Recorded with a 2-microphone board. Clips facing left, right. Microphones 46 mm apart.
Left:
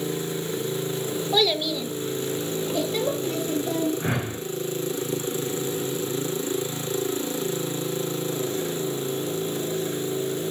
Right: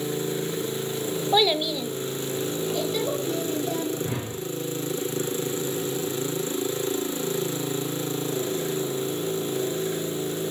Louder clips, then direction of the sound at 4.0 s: Left 3 dB; 65° left (ahead or behind).